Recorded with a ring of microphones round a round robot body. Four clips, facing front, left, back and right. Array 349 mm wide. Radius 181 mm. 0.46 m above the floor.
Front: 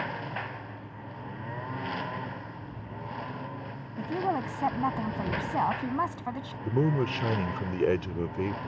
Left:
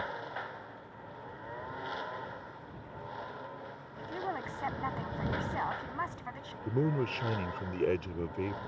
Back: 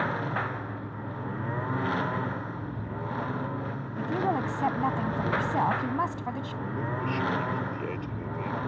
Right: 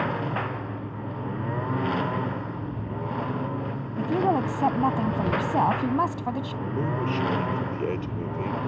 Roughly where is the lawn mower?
Right.